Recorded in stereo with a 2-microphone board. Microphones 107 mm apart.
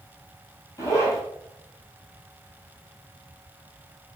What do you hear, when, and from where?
0.8 s a zipper: 30° left (ahead or behind), 1.1 m